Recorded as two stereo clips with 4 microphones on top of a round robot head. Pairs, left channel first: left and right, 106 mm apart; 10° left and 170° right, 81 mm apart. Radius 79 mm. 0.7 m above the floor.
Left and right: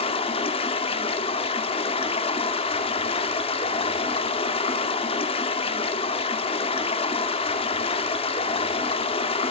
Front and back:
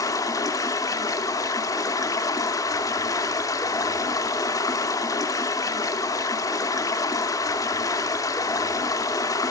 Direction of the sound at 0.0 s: 55° left.